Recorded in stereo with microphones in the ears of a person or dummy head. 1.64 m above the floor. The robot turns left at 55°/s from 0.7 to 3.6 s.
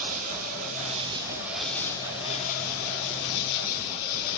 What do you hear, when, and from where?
0.0 s an insect: 130° right, 1.7 m; by 4.4 s 75° left, 1.7 m